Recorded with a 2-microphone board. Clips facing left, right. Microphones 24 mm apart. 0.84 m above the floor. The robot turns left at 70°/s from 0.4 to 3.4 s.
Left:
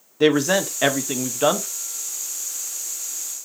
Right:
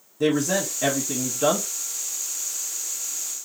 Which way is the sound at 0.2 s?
110° left.